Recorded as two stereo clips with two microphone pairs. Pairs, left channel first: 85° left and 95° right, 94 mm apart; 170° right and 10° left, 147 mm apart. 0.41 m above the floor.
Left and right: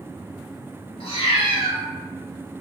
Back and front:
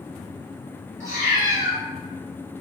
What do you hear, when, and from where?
1.0 s a cat meowing: 80° left, 1.2 m